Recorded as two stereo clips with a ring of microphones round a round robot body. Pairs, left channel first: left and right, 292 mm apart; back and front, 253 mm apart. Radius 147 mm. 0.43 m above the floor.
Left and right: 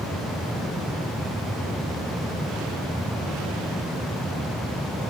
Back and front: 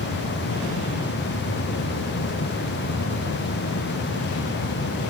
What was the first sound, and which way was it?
Only background noise.